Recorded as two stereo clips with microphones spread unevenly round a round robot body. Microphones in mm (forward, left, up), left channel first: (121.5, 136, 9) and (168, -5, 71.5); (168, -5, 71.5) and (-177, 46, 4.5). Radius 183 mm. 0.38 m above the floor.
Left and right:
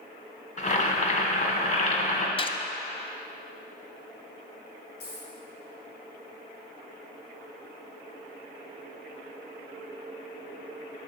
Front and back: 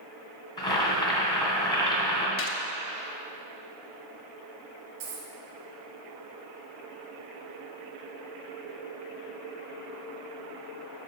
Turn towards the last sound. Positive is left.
turn(degrees=140)